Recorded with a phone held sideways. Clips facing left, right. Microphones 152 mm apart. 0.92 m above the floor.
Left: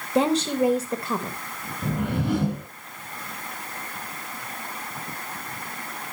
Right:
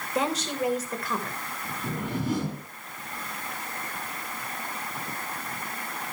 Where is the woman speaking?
25° left (ahead or behind), 0.8 m.